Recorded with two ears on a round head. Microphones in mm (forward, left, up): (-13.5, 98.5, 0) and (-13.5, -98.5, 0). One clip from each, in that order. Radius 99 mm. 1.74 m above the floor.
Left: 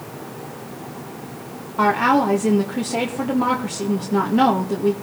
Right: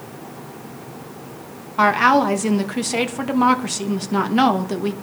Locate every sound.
1.8 s a woman speaking: 50° right (ahead or behind), 2 m